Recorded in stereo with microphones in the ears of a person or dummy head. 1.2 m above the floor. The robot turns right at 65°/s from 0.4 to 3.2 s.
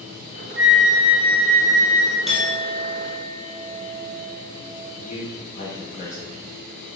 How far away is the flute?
About 0.5 m.